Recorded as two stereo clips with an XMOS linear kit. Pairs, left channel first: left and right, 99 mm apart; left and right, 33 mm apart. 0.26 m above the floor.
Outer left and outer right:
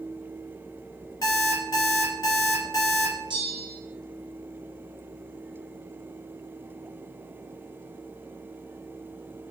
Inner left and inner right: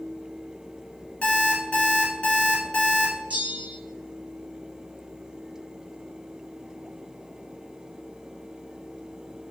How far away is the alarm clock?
About 1.2 m.